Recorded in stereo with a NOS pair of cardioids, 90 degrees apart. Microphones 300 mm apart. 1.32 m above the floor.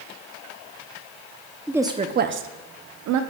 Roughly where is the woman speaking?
Ahead.